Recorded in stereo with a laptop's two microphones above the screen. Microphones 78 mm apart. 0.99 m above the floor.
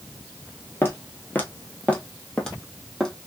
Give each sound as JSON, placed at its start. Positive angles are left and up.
{"t": 0.8, "sound": "footsteps", "side_deg": 30, "distance_m": 1.1}